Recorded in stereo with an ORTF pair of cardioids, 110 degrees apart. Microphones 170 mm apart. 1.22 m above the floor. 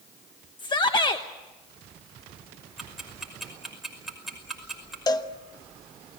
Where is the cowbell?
25° left, 1.1 m.